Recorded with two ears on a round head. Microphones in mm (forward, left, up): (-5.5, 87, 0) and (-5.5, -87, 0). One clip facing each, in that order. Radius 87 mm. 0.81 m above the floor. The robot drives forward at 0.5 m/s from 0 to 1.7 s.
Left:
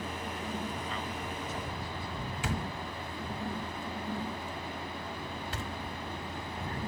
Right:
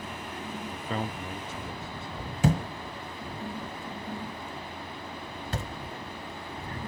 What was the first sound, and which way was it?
A man speaking, 40° right (ahead or behind).